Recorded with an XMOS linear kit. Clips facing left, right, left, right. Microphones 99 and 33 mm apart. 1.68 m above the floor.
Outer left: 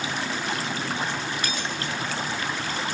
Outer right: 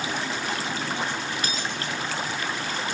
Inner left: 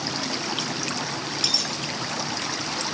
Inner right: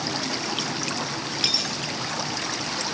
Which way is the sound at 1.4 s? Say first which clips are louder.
Even, inner right 1 dB; 30° right (ahead or behind).